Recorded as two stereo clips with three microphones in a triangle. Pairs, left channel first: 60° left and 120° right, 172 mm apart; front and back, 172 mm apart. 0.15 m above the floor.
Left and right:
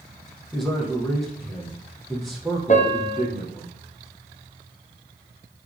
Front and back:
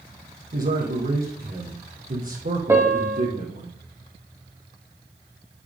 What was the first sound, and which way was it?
A man speaking, 150° left.